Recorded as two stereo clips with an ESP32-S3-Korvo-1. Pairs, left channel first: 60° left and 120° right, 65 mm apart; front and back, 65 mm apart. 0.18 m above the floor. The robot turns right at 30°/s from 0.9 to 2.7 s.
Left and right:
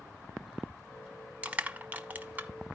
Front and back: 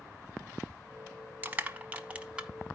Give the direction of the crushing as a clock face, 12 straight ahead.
5 o'clock.